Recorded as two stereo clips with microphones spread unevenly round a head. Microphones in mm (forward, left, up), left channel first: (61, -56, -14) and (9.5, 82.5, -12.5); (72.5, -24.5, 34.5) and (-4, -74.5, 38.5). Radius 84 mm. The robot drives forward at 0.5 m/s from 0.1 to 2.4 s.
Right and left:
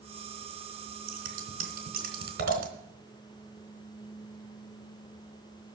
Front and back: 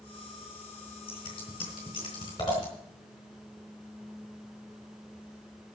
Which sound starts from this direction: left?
Scissors, at 1.1 s.